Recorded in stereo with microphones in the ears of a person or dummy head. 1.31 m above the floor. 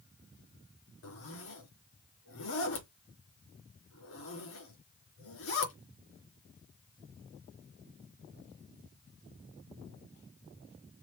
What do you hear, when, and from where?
1.0 s a zipper: 70° left (ahead or behind), 3.5 m